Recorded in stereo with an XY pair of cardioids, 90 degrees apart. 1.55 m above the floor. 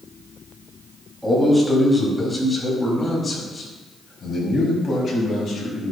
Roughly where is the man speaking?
Ahead.